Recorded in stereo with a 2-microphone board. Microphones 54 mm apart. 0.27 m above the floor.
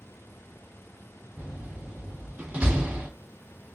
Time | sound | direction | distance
1.4 | a door slam | 25° right (ahead or behind) | 2.0 m